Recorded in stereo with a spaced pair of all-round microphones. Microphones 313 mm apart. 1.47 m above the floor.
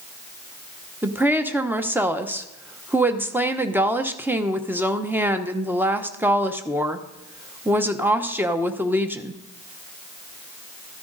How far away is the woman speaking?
About 0.8 m.